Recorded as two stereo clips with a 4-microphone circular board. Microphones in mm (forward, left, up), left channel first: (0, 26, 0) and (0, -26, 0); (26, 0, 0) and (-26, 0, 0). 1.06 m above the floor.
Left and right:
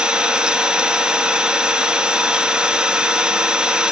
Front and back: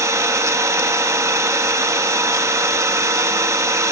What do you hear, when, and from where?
0.0 s an engine running: 160° right, 0.9 m